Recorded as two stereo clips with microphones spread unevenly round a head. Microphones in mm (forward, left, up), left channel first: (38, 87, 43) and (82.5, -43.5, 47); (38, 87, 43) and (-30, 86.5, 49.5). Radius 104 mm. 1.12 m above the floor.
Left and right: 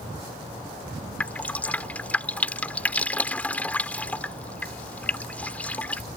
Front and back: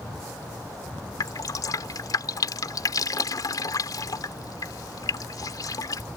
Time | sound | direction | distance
1.2 | dripping | 30° left | ?